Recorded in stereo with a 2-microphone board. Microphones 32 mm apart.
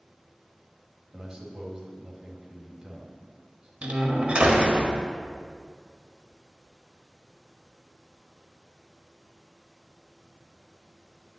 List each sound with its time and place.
1.1 s a man speaking: 20° right (ahead or behind), 2.5 m
3.8 s a door slam: 40° right (ahead or behind), 1.5 m